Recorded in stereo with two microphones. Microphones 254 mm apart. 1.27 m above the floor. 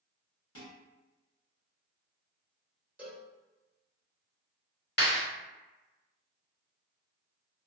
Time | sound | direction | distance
0.6 | dishes clattering | 60° left (ahead or behind) | 1.5 m
3.0 | a cowbell | 5° right (ahead or behind) | 1.0 m
5.0 | a clap | 45° left (ahead or behind) | 1.3 m